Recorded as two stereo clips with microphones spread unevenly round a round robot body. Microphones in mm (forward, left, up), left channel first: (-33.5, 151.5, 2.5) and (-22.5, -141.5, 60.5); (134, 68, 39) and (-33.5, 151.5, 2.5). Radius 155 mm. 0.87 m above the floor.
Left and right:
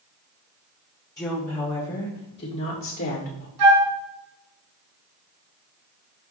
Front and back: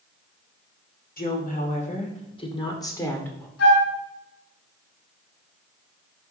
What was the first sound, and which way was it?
A woman speaking, 15° left.